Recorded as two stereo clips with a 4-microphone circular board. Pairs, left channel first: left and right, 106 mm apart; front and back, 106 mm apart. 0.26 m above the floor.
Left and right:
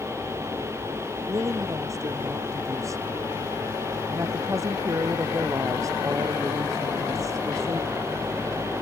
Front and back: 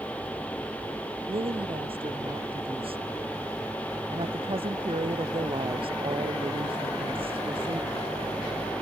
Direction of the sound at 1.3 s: 150° right.